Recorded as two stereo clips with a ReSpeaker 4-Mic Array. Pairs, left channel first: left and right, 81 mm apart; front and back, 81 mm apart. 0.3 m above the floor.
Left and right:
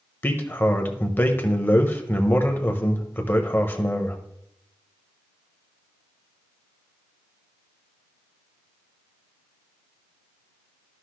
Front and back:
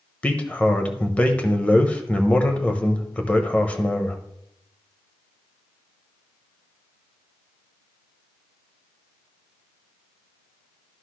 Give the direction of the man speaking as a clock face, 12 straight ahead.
10 o'clock.